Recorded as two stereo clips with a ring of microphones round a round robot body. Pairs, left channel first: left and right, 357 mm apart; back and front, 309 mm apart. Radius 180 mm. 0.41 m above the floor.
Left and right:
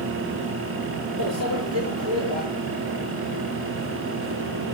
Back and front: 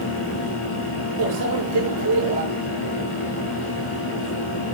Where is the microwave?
40° right, 7 m.